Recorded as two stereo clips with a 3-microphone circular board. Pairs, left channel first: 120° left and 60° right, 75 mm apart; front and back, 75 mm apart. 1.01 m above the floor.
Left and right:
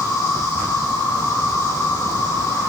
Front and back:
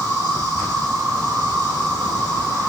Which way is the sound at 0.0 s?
135° left.